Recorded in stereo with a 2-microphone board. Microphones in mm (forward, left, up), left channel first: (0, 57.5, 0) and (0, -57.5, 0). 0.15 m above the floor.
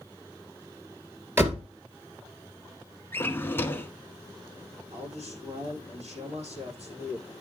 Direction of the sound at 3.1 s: 20° left (ahead or behind).